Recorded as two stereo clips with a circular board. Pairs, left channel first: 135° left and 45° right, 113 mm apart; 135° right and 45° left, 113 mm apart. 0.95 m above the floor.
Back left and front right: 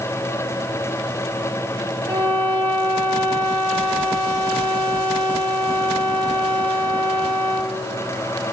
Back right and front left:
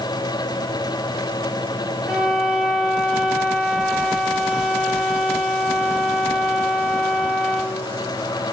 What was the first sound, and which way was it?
A violin, 40° right.